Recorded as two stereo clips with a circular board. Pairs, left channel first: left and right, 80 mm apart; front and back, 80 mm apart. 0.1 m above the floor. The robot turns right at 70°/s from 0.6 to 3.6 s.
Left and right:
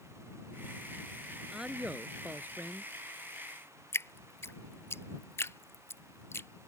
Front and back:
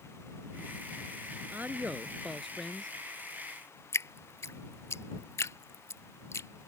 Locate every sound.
1.5 s a man speaking: 160° right; by 2.9 s 65° right
3.9 s dripping: 40° left